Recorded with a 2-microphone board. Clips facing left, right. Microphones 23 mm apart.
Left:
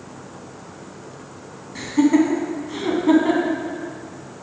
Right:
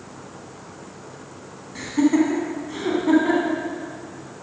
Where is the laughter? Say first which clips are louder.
Left 2 dB; 5° left (ahead or behind), 1.3 m.